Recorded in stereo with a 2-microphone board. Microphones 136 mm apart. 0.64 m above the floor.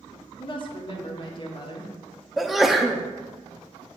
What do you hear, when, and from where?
0.4 s a woman speaking: 40° left (ahead or behind), 1.4 m
2.4 s a sneeze: centre (ahead or behind), 0.6 m